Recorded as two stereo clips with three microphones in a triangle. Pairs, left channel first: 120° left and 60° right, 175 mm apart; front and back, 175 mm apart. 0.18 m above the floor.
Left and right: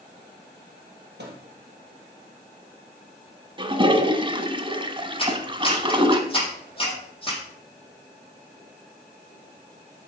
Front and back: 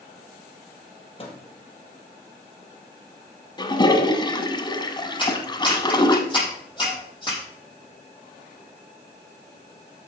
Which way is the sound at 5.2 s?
65° left.